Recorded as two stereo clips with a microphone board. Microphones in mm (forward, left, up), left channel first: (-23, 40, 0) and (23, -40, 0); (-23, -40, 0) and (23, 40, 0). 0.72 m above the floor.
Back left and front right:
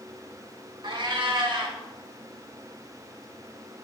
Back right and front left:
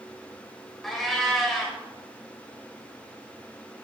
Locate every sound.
0.8 s a cat meowing: 30° right, 1.0 m